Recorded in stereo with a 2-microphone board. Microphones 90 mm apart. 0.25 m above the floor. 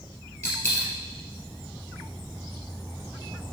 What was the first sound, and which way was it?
A dropped coin, 30° left (ahead or behind).